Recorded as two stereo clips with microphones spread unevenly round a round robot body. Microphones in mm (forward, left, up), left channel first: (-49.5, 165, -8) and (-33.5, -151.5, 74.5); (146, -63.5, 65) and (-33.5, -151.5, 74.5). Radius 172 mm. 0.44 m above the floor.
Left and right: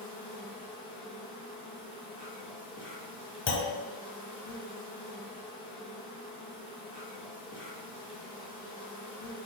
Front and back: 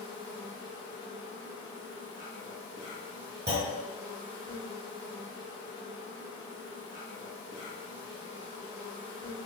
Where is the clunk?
150° left, 0.7 m.